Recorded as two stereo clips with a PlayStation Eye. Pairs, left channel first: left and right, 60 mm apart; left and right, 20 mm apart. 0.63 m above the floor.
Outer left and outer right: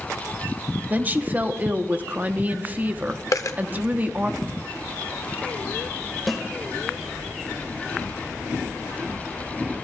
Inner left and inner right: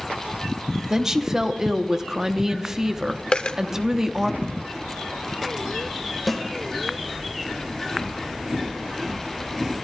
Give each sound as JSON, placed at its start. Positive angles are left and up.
{"t": 0.9, "sound": "a woman speaking", "side_deg": -30, "distance_m": 0.8}
{"t": 3.3, "sound": "a dropped coin", "side_deg": 65, "distance_m": 0.8}
{"t": 6.3, "sound": "a snare drum", "side_deg": 0, "distance_m": 1.6}